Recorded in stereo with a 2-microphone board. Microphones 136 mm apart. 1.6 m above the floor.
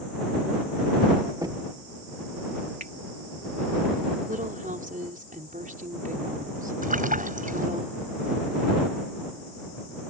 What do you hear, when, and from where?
1.4 s knocking: 25° right (ahead or behind)
2.8 s a finger snap: 85° right
4.3 s a woman speaking: 80° right
6.8 s a splash: 80° right